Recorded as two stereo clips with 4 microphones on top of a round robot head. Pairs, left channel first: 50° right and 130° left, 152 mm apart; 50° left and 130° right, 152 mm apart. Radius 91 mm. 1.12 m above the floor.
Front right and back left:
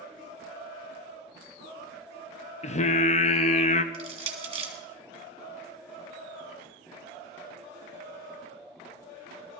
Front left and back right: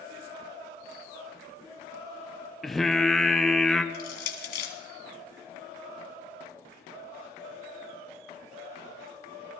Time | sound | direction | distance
2.6 | singing | 40° right | 0.8 m
3.9 | crushing | 70° left | 2 m